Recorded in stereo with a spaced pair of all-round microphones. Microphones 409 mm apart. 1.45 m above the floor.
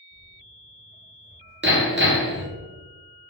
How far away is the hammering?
About 0.9 m.